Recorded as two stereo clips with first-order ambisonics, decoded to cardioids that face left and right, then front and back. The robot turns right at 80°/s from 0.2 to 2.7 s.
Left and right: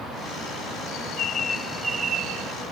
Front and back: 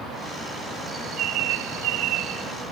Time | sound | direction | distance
0.9 | a bird | 110° left | ?